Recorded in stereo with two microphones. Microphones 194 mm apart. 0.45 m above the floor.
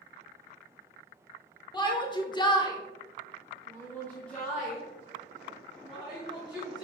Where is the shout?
20° left (ahead or behind), 1.4 m; by 6.8 s 5° right (ahead or behind), 3.5 m.